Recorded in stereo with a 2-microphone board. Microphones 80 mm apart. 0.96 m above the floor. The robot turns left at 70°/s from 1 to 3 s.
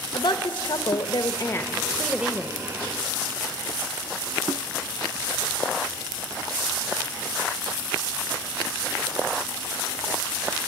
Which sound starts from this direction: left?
A woman speaking, at 0.1 s.